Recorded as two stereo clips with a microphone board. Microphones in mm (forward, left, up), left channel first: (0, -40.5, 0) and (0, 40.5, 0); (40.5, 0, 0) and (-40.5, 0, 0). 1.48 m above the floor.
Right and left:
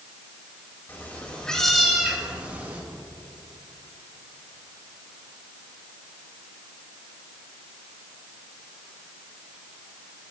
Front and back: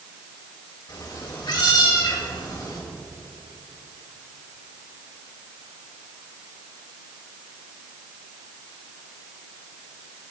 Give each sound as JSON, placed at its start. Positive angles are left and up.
{"t": 0.9, "sound": "a cat meowing", "azimuth_deg": -30, "distance_m": 3.0}